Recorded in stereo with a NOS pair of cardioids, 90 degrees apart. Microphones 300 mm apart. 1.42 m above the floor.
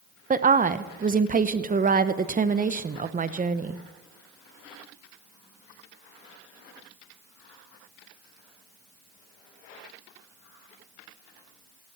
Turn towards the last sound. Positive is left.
turn(degrees=-25)